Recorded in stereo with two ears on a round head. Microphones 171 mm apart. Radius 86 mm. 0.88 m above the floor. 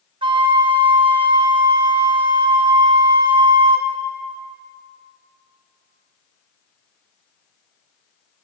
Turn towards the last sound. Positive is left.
turn(degrees=-25)  # may be behind; listen again after turning